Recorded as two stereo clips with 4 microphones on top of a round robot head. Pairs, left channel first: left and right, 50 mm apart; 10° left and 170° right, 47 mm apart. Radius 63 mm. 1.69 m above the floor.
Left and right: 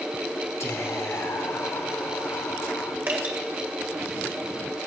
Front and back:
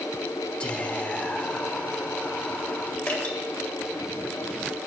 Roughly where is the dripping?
Ahead right.